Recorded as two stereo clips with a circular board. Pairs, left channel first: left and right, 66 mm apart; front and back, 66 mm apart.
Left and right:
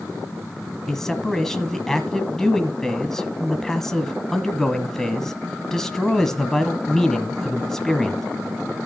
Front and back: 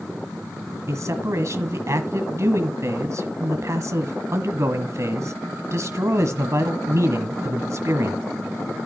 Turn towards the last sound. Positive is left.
turn(degrees=175)